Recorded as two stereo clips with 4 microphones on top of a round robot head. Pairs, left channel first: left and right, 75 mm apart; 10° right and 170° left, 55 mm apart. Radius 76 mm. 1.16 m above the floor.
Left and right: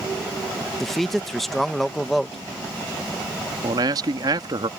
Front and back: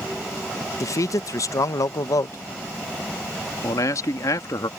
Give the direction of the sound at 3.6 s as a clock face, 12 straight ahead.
2 o'clock.